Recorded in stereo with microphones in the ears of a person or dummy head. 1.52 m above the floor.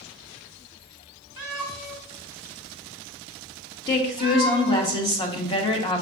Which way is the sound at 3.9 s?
20° left (ahead or behind).